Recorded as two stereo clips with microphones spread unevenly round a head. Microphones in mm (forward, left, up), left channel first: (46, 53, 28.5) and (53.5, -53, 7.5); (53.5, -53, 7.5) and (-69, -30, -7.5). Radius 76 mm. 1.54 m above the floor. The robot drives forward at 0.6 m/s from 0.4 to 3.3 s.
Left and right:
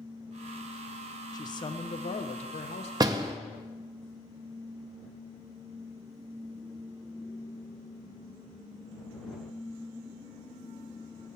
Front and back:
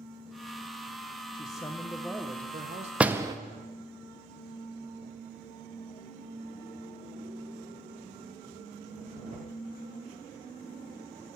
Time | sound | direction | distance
1.3 | a man speaking | 50° left | 0.9 m
3.0 | a door slam | 105° right | 0.5 m